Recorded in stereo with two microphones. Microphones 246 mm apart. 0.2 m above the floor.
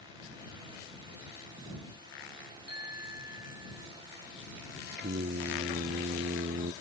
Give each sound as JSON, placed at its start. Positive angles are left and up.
{"t": 2.7, "sound": "a bicycle bell", "side_deg": -85}
{"t": 5.0, "sound": "singing", "side_deg": -45}